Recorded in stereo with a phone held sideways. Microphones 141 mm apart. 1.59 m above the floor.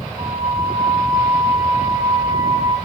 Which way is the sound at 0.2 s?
45° right (ahead or behind).